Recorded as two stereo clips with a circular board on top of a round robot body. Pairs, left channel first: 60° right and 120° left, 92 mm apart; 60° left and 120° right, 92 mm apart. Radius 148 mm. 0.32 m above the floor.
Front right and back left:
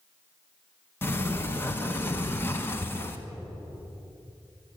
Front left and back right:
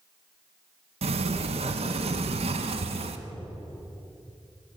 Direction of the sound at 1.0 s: 130° right.